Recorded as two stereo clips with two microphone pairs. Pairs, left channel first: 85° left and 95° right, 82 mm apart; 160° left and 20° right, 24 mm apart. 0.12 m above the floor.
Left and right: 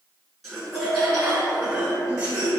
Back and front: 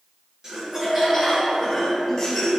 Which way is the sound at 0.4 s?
Straight ahead.